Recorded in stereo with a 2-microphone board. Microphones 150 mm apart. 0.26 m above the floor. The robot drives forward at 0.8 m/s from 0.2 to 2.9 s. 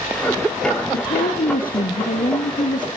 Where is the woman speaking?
75° left (ahead or behind), 3.5 m; by 2.9 s 65° left (ahead or behind), 4 m.